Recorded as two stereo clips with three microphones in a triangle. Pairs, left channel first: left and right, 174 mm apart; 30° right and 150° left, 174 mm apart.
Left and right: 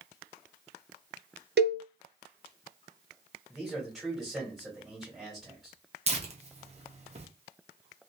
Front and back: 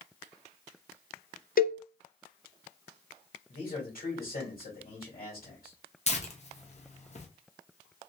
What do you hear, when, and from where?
1.6 s a cowbell: 70° right, 0.6 m
3.5 s a man speaking: straight ahead, 2.5 m
6.1 s tearing paper: 60° right, 0.8 m